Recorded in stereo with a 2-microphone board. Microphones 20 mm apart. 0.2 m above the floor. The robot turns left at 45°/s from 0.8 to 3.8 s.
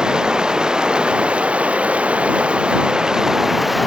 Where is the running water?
35° right; by 3.9 s 170° right.